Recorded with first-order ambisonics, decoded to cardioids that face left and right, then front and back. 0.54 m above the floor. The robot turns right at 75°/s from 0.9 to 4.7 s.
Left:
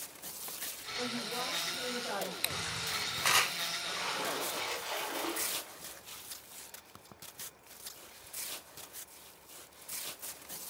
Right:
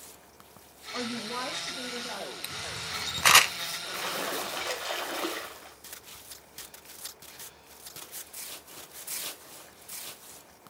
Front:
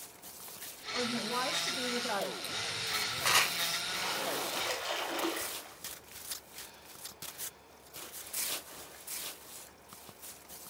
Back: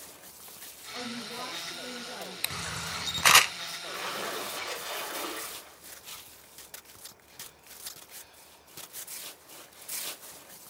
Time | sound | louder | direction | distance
0.9 | a woman speaking | right 3 dB, front 5 dB | 75° right | 2.5 m
2.4 | a camera shutter | even, back 1 dB | 155° left | 0.6 m
3.8 | a splash | right 2 dB, even | 135° right | 3 m